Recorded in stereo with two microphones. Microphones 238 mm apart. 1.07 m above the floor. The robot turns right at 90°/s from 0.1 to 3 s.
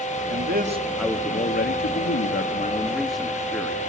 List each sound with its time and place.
0.3 s a man speaking: 65° right, 2 m; by 3.8 s straight behind, 2 m